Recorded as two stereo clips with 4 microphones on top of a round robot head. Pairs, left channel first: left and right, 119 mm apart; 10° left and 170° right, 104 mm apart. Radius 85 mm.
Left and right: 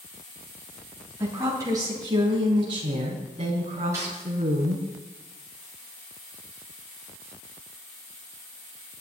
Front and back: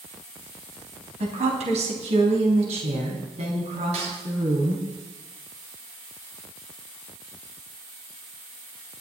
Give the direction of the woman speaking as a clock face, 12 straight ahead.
5 o'clock.